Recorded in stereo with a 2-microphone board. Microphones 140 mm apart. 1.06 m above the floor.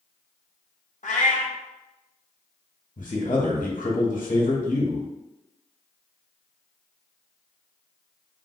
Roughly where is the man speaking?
Left.